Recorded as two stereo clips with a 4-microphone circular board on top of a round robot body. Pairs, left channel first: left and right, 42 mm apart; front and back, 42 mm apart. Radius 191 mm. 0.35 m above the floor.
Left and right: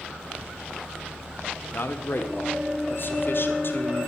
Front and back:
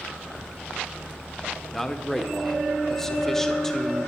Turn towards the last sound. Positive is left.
turn(degrees=80)